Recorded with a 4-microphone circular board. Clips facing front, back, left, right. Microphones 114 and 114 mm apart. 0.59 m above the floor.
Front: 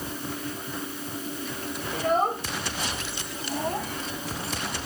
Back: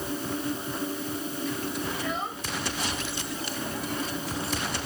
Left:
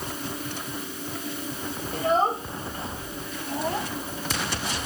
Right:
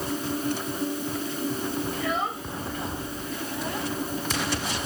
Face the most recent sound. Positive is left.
turn(degrees=35)